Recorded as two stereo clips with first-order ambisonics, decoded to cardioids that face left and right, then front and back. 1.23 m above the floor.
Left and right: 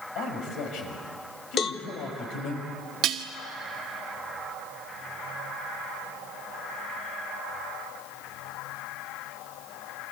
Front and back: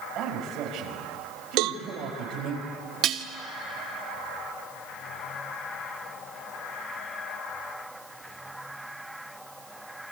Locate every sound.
0.1 s a man speaking: 130° left, 6 m
1.6 s a cowbell: 155° left, 0.9 m
3.0 s dishes clattering: 130° right, 1.5 m